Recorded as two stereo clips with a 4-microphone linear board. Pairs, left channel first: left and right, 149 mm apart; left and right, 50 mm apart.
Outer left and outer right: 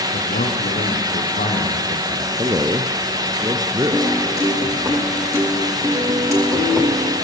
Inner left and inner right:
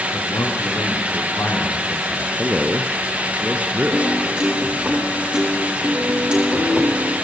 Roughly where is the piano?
Centre.